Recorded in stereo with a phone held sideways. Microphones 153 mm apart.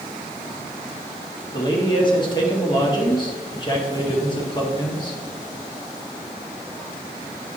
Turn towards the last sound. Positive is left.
turn(degrees=30)  # may be behind; listen again after turning